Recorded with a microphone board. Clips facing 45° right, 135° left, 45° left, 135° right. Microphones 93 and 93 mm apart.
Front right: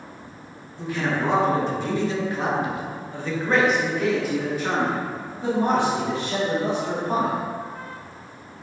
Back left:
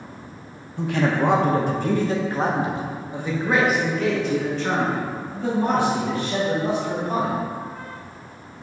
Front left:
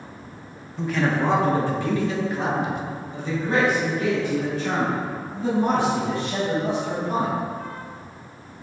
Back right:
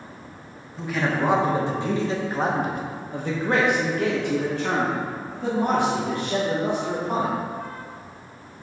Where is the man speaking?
135° left, 1.3 m; by 7.3 s 105° right, 2.5 m.